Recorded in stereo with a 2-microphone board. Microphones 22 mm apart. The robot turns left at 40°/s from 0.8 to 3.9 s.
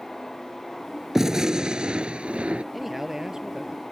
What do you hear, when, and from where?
1.1 s a gunshot: 20° right; by 2.6 s 80° right
2.7 s a man speaking: 5° right; by 3.8 s 45° right